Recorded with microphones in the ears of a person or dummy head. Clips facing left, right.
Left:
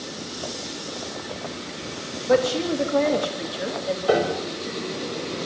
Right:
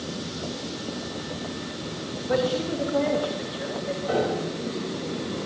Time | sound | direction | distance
2.3 | a woman speaking | 60° left (ahead or behind) | 3.5 m
4.1 | a piano | 70° left (ahead or behind) | 6 m